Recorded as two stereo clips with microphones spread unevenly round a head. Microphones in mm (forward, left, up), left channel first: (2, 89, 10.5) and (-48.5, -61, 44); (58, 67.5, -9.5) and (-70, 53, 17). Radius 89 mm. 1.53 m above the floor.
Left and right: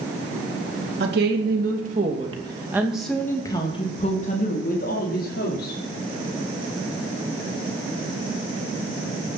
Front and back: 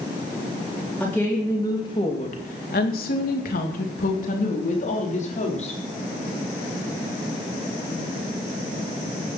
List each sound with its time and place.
1.0 s a woman speaking: 75° right, 3.5 m; by 5.8 s 40° left, 5 m